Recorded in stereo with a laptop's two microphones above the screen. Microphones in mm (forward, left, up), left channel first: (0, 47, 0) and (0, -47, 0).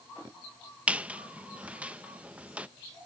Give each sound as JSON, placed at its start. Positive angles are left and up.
{"t": 0.9, "sound": "a squeak", "side_deg": -15, "distance_m": 0.6}